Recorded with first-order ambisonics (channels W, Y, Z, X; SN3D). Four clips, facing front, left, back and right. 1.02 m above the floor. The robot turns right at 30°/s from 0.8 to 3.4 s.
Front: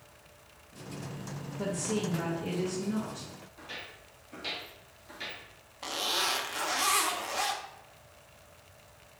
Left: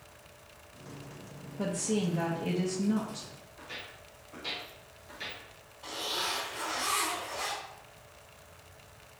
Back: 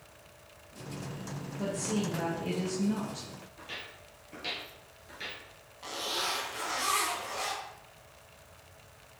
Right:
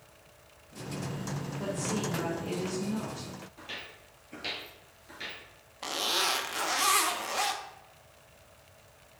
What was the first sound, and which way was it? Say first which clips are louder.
A woman speaking: left 3 dB, even; 85° left.